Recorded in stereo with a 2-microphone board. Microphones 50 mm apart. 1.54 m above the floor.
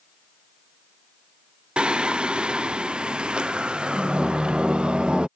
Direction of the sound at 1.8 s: 20° right (ahead or behind).